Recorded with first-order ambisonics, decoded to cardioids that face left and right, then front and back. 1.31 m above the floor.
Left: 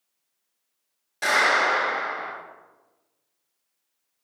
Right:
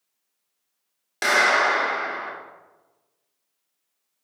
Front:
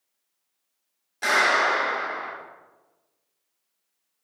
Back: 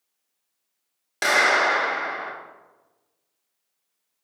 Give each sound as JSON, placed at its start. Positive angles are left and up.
{"t": 1.2, "sound": "a clap", "azimuth_deg": -145, "distance_m": 2.5}